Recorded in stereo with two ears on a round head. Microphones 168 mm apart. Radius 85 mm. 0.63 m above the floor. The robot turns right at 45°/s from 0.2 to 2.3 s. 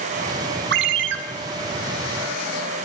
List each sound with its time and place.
0.7 s a ringtone: 60° right (ahead or behind), 1.4 m; by 1.2 s 65° right (ahead or behind), 1.4 m